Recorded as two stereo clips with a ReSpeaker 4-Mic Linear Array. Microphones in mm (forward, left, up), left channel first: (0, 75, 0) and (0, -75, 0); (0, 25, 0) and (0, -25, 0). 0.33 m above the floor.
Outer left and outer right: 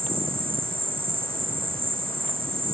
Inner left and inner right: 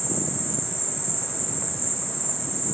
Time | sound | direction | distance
0.0 | an insect | 85° right | ?